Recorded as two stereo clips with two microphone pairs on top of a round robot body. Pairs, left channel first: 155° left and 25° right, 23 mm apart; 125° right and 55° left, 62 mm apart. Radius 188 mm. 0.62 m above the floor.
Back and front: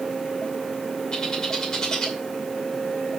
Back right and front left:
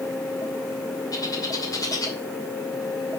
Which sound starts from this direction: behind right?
A bird, at 1.1 s.